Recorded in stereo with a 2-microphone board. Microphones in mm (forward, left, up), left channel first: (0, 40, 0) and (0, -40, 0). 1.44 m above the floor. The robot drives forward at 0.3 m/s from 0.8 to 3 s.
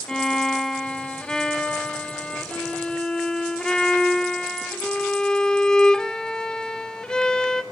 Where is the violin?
5° left (ahead or behind), 0.8 m; by 7.6 s 10° left (ahead or behind), 0.6 m.